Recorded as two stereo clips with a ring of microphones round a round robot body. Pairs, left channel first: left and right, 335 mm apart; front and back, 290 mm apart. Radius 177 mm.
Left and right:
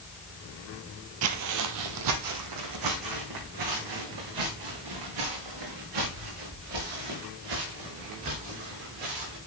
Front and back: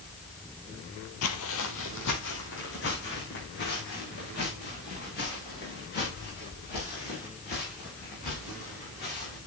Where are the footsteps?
45° right, 0.8 m; by 9.4 s 65° right, 9 m.